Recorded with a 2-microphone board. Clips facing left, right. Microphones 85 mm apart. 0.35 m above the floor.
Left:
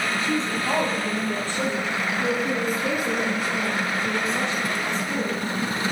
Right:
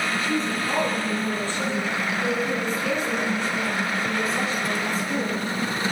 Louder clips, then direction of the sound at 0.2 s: Even; 30° left (ahead or behind).